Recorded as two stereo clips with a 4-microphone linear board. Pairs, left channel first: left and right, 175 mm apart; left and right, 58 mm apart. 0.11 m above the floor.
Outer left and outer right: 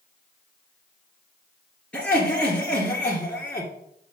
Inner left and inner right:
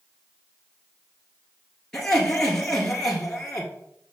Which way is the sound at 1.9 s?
5° left (ahead or behind).